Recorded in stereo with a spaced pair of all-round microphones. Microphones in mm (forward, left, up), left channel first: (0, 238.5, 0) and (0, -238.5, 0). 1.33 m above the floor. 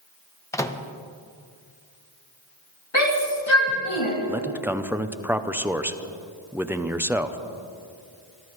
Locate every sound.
0.5 s a microwave: 5° left (ahead or behind), 0.7 m
2.9 s a shout: 75° left (ahead or behind), 2.5 m
4.3 s a man speaking: 5° right (ahead or behind), 0.6 m